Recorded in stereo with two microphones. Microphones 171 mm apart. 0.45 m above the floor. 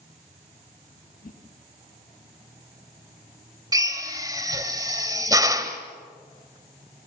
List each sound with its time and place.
1.2 s a whoosh: 60° left (ahead or behind), 4 m
3.7 s a drill: 20° right (ahead or behind), 1.8 m